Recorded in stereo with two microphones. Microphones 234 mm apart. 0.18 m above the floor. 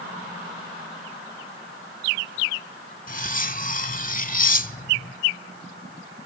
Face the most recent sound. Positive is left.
turn(degrees=35)  # may be behind; listen again after turning